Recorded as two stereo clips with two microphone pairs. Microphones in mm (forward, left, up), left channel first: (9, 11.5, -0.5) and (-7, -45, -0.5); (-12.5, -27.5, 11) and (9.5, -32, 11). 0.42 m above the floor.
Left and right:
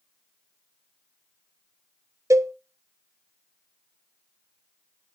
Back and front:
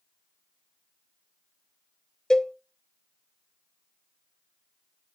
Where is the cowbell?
125° right, 0.6 m.